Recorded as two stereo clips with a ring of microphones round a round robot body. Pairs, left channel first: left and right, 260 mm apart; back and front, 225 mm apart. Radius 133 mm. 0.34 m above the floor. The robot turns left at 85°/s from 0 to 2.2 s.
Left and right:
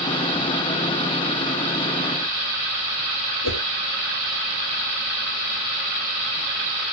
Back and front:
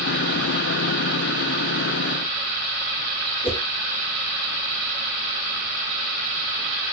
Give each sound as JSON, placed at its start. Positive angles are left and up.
{"t": 3.4, "sound": "a whoosh", "azimuth_deg": 110, "distance_m": 3.5}